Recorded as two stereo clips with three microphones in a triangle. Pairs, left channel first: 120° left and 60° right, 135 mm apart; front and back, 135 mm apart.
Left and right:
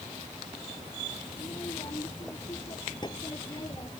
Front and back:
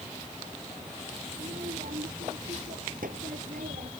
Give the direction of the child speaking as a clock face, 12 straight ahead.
6 o'clock.